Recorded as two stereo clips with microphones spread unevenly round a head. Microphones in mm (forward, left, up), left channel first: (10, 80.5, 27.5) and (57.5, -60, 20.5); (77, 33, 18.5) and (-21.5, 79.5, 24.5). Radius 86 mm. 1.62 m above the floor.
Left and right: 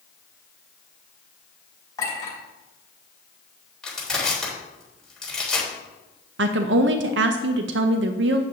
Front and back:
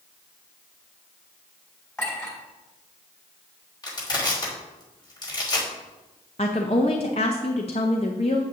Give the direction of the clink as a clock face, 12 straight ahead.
11 o'clock.